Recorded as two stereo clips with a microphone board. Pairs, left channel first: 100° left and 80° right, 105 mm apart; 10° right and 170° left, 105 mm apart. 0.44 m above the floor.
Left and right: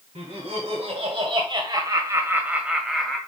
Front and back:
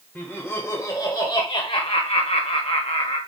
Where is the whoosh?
I don't hear a whoosh.